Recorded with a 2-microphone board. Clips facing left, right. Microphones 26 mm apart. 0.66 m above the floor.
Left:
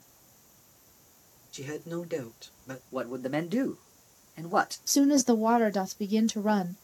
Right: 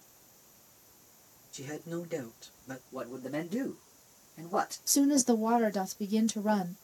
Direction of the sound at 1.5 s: 40° left (ahead or behind).